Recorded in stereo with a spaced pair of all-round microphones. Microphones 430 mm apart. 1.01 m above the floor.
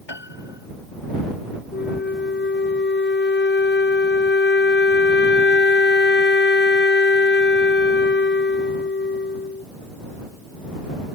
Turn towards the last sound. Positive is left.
turn(degrees=25)  # may be behind; listen again after turning